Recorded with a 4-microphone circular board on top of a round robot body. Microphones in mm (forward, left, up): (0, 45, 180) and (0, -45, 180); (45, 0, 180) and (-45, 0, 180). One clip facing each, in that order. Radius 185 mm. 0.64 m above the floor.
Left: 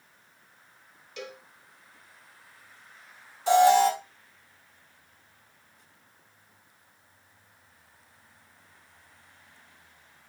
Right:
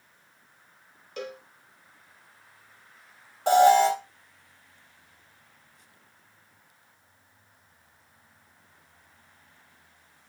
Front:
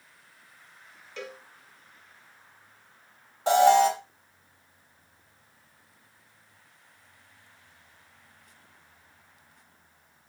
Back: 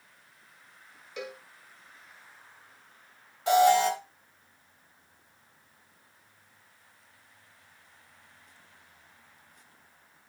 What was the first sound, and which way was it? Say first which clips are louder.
A cowbell: right 4 dB, back 1 dB; 105° right.